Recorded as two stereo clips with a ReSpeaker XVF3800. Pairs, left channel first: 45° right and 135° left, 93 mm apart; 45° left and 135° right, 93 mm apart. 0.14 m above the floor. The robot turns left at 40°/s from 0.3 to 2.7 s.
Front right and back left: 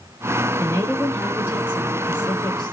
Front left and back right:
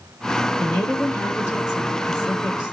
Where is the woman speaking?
115° left, 1.6 m; by 2.7 s 30° left, 1.6 m.